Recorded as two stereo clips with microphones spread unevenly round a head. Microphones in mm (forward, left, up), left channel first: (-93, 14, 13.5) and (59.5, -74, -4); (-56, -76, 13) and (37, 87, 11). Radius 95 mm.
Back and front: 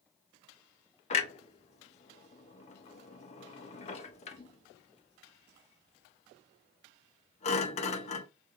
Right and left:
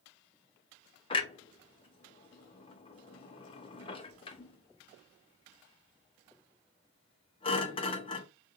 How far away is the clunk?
About 0.6 m.